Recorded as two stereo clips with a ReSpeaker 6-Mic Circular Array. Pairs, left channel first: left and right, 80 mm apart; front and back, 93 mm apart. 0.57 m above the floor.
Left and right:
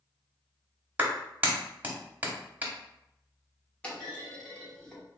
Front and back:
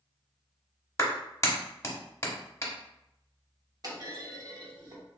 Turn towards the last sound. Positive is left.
turn(degrees=160)